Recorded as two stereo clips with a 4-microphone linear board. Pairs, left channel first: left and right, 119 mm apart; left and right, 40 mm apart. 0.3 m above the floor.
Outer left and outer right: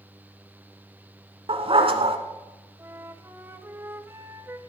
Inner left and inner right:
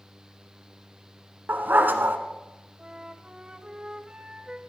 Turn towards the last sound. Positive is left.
turn(degrees=-20)  # may be behind; listen again after turning